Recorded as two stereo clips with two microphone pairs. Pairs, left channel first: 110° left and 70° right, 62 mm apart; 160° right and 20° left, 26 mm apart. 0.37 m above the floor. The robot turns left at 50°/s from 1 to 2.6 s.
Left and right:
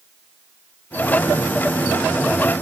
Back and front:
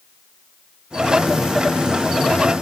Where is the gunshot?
No gunshot in this recording.